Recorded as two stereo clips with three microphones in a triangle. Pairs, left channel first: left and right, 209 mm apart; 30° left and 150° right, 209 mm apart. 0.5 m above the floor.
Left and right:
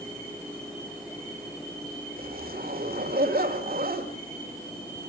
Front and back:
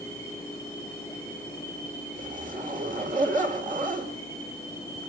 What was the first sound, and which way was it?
A zipper, 115° right.